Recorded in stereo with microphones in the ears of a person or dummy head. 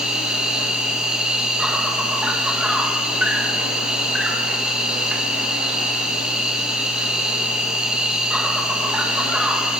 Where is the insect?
Centre (ahead or behind), 4 m.